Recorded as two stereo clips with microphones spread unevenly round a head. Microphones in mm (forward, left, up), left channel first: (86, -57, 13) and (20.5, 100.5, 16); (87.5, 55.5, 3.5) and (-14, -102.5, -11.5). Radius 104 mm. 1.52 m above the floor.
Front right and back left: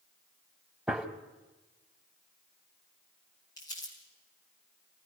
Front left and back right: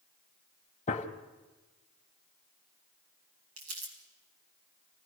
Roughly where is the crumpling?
Behind right.